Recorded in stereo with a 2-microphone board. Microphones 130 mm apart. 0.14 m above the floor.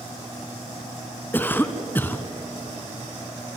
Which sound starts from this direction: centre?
A cough, at 1.3 s.